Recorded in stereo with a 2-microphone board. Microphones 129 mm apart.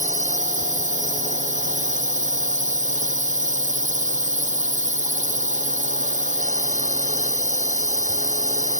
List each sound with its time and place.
0.0 s a drone: 70° right (ahead or behind)